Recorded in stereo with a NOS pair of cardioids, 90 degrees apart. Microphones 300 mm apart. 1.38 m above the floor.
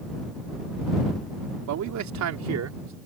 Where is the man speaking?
70° right; by 3.0 s 60° right.